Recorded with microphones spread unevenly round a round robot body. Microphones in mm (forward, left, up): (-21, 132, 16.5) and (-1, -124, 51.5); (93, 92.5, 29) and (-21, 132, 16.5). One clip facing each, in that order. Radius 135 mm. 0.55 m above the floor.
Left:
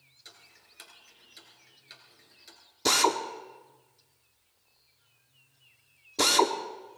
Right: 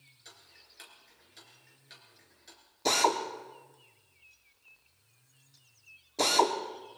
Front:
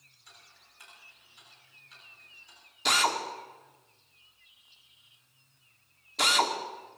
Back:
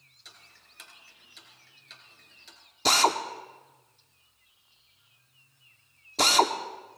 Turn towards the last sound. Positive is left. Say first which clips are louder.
# left 2 dB, back 4 dB
turn(degrees=140)